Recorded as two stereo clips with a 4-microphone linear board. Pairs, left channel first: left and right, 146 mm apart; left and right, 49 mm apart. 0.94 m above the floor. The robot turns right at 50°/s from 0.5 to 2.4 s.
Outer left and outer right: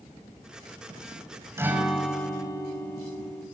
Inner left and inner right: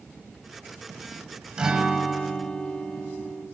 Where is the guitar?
15° right, 5 m; by 3.5 s 25° left, 5 m.